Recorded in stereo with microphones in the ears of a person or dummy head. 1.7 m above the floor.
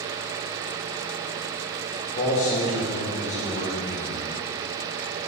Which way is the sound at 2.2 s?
35° left (ahead or behind).